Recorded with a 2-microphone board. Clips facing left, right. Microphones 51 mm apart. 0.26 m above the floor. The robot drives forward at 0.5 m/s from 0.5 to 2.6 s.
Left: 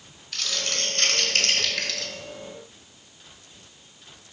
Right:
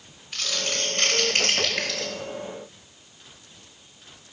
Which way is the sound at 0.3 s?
15° right (ahead or behind).